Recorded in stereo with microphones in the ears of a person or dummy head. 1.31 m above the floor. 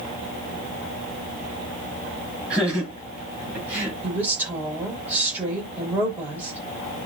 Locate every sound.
2.5 s laughter: 5° right (ahead or behind), 9 m; by 3.9 s 10° right (ahead or behind), 8.5 m
4.0 s a woman speaking: 10° right (ahead or behind), 5.5 m